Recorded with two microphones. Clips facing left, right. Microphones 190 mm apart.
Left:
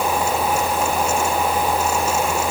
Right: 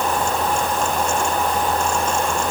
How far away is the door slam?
No door slam in this recording.